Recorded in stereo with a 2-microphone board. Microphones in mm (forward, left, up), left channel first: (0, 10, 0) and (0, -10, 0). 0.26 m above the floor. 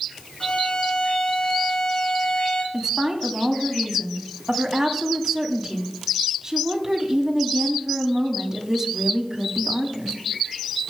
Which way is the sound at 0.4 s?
50° left (ahead or behind).